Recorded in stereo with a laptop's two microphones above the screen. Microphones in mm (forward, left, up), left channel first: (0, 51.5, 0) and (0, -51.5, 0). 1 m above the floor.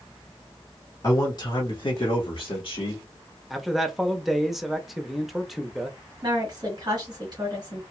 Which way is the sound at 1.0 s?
35° left (ahead or behind).